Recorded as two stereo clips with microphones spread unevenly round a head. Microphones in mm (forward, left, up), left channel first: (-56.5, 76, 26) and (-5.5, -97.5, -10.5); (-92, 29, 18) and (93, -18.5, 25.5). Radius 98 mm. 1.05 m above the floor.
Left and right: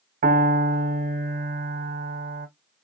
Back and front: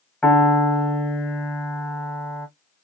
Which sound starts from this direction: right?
A piano, at 0.2 s.